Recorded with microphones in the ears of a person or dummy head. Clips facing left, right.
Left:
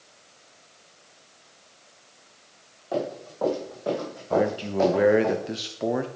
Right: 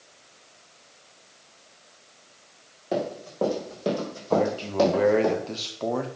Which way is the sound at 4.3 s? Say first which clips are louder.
Even; 15° left (ahead or behind).